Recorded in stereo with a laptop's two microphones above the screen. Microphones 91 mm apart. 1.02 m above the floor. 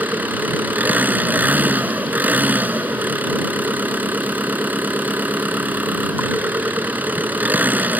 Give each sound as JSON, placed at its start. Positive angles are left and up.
{"t": 0.0, "sound": "an engine running", "side_deg": -20}